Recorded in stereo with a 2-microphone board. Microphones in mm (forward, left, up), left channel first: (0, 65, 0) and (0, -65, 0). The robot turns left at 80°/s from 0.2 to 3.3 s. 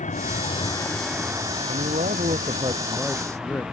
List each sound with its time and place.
0.0 s a vehicle: 70° left; by 3.7 s 175° right
1.7 s a man speaking: 65° right; by 3.6 s 165° left